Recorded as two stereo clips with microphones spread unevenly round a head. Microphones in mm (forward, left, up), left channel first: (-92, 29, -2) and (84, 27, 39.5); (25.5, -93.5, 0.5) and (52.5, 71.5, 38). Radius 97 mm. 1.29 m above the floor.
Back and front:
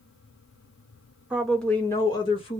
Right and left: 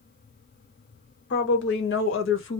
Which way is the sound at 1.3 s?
85° right.